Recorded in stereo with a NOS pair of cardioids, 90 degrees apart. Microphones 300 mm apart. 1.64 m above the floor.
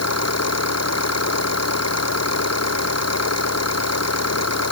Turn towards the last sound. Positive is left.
turn(degrees=60)